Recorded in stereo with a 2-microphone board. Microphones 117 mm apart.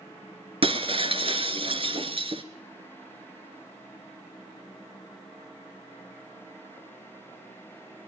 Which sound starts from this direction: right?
Breaking glass, at 0.6 s.